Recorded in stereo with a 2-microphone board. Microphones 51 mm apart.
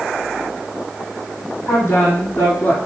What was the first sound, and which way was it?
A woman speaking, 50° left (ahead or behind).